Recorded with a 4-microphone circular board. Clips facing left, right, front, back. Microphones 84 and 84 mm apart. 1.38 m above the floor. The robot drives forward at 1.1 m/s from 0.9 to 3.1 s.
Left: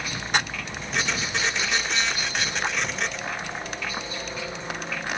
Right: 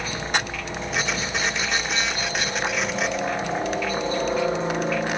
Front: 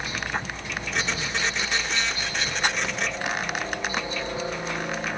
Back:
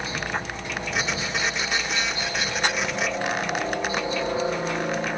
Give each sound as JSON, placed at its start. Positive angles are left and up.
{"t": 0.0, "sound": "a helicopter", "azimuth_deg": -125}